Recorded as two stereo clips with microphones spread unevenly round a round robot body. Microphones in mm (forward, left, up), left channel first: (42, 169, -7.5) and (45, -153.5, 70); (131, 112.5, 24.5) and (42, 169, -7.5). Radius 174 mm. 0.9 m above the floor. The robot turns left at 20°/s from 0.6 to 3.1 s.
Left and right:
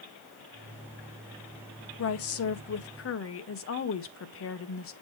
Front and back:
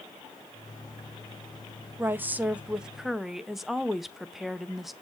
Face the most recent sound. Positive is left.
turn(degrees=75)